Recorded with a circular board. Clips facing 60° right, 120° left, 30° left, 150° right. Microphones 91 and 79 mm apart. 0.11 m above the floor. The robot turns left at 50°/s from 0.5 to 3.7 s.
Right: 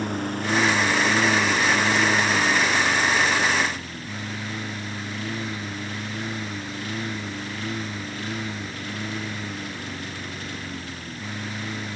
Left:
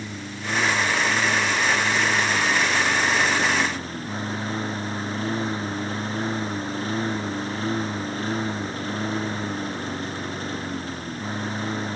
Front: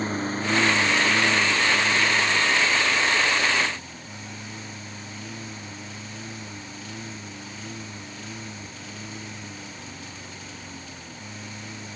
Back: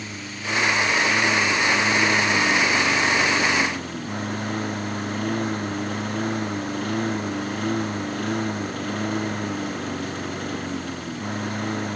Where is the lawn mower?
25° right; by 12.0 s 175° left.